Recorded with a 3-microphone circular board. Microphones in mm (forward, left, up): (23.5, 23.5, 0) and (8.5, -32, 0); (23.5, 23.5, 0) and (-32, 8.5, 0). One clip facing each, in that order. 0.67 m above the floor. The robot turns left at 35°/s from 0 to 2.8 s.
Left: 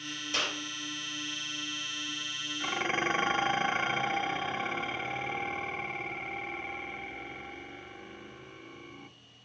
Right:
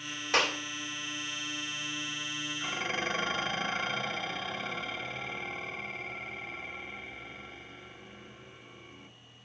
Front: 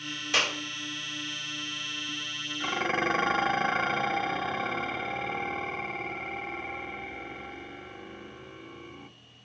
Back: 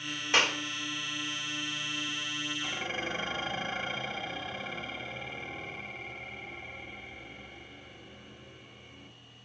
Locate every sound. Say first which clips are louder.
0.3 s a clap: right 6 dB, back 1 dB; 105° right, 2.5 m; by 0.6 s 115° right, 2.5 m
2.6 s dishes clattering: left 4 dB, front 12 dB; 20° left, 0.9 m; by 9.1 s 10° left, 0.9 m